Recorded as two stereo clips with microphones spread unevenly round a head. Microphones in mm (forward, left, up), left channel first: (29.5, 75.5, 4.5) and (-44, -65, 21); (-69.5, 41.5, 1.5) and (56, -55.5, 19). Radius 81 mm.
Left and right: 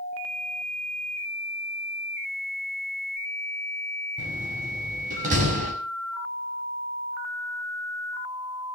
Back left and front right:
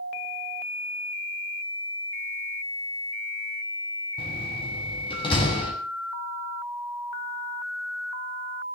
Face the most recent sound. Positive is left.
turn(degrees=-160)